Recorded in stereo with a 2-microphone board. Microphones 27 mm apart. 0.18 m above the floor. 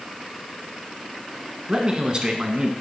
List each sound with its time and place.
1.7 s a man speaking: 30° right (ahead or behind), 1.4 m